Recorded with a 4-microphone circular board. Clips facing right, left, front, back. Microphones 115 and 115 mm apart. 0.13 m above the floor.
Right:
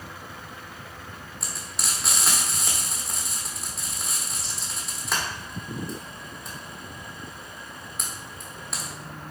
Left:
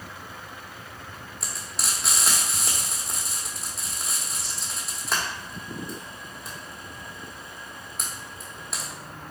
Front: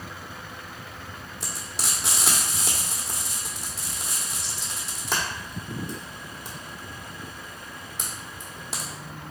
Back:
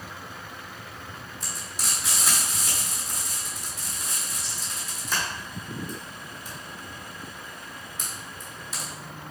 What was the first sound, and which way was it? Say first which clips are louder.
Frying: left 1 dB, front 3 dB; straight ahead.